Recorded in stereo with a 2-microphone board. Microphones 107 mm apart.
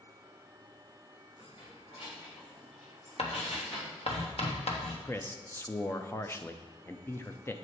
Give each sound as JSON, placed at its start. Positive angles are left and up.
{"t": 1.4, "sound": "keys jangling", "side_deg": 60, "distance_m": 2.0}
{"t": 3.2, "sound": "writing", "side_deg": 70, "distance_m": 1.2}
{"t": 5.0, "sound": "a man speaking", "side_deg": 20, "distance_m": 0.6}